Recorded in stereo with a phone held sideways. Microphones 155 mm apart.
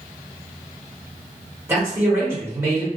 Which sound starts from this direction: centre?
A man speaking, at 1.7 s.